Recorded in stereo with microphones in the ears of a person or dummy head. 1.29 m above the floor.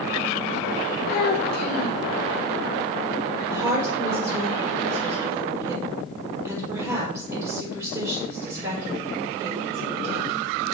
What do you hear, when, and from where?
1.1 s a child speaking: 50° left (ahead or behind), 0.7 m
3.5 s a woman speaking: 10° right (ahead or behind), 4.5 m